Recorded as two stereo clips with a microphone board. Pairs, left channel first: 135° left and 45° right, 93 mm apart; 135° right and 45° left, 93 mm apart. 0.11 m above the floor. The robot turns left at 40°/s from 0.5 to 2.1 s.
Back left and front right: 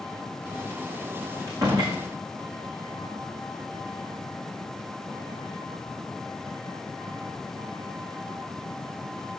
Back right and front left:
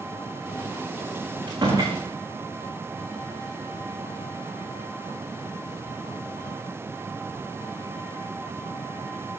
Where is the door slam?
10° left, 5 m; by 2.0 s 10° right, 5 m.